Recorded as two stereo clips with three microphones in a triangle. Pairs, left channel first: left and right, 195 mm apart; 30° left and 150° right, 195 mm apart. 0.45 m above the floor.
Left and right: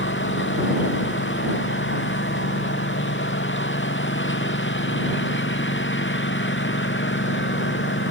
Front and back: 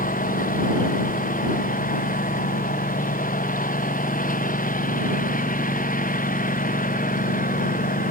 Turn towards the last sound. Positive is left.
turn(degrees=75)